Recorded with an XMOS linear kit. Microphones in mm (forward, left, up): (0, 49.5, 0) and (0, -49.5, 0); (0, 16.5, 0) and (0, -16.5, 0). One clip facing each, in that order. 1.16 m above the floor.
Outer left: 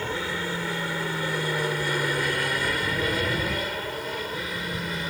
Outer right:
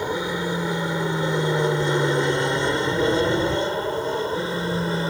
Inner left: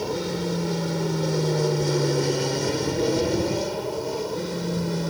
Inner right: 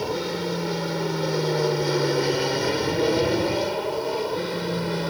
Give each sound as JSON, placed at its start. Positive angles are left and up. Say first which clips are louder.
{"t": 0.0, "sound": "an aircraft", "louder": "outer right 5 dB, even", "side_deg": -15}